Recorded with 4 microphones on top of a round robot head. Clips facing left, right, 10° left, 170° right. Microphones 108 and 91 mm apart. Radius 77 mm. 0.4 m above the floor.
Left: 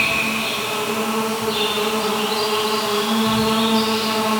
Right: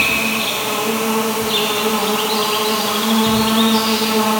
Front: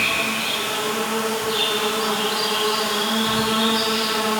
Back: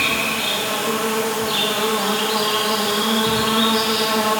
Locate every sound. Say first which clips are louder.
0.0 s an insect: right 3 dB, back 2 dB; 115° right, 1.0 m